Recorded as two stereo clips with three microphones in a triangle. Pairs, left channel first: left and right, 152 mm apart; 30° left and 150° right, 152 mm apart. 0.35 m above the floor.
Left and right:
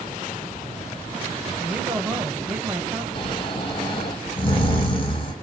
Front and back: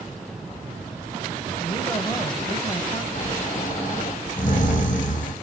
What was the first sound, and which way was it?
A woman speaking, 15° right.